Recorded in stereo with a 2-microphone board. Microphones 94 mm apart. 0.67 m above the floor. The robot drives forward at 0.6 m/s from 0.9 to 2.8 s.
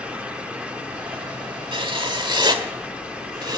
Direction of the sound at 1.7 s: 65° right (ahead or behind).